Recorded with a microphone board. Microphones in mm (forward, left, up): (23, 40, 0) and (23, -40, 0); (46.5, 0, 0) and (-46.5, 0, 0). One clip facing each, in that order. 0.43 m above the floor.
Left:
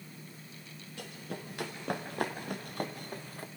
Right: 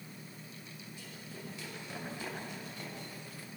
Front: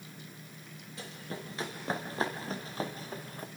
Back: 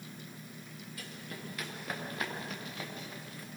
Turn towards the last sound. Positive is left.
turn(degrees=45)